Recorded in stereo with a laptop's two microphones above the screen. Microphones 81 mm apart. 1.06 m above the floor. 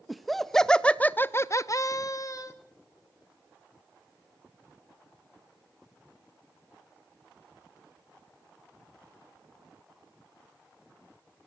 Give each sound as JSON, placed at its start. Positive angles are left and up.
{"t": 0.1, "sound": "laughter", "side_deg": 0, "distance_m": 1.4}